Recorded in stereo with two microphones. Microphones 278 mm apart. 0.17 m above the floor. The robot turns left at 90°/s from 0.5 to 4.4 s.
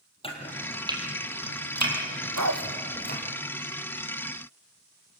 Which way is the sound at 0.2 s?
20° left (ahead or behind).